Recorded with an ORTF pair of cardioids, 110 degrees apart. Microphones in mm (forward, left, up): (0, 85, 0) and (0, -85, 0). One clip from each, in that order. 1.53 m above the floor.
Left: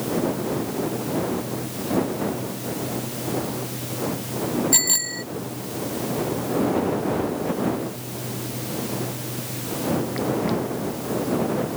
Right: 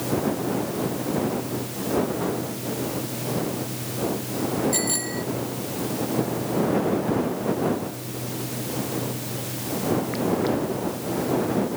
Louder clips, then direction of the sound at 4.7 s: Left 4 dB; 55° left.